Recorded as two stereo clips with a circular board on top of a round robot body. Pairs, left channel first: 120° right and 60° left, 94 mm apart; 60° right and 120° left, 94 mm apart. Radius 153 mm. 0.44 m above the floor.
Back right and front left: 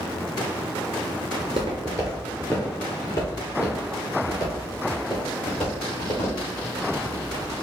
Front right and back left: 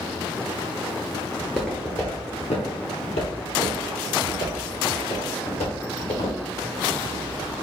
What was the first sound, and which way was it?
Footsteps, 45° left.